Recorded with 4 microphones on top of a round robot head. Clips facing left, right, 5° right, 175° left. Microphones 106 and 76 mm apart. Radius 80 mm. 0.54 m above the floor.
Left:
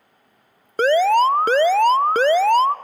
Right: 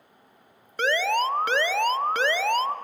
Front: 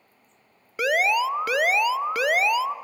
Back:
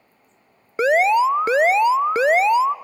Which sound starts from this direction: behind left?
An alarm, at 0.8 s.